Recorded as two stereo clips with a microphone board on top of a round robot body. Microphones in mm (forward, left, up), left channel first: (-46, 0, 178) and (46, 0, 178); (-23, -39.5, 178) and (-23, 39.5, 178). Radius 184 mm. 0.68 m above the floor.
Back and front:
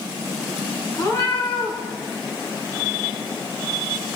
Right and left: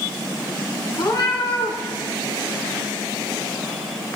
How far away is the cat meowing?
About 3 m.